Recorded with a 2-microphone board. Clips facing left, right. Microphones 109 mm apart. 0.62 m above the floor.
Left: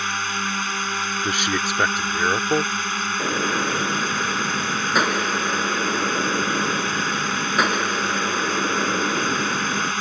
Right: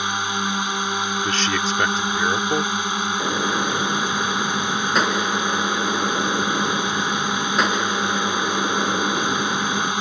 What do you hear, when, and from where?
0.0 s a drone: 15° right (ahead or behind)
1.2 s a man speaking: 10° left (ahead or behind)
3.2 s a gunshot: centre (ahead or behind)